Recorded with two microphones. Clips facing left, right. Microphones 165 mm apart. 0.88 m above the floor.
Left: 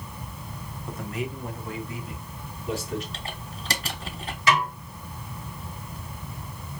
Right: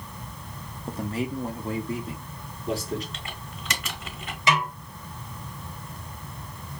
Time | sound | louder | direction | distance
0.9 | a man speaking | right 4 dB | 30° right (ahead or behind) | 0.7 m
3.1 | typing on a keyboard | left 2 dB | 35° left (ahead or behind) | 0.8 m
4.5 | a snare drum | left 1 dB | 20° right (ahead or behind) | 2.5 m